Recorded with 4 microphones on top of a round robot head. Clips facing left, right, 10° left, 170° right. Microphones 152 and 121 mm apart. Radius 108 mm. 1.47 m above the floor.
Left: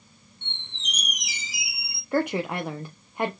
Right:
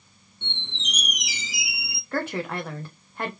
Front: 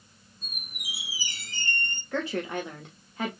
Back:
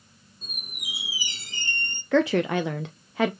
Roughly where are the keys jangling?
I don't hear keys jangling.